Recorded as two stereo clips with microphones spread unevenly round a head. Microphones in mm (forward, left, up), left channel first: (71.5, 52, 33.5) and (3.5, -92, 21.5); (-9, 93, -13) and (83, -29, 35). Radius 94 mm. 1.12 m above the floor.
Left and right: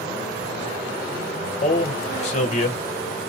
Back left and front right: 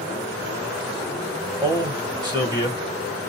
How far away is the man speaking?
About 1.2 m.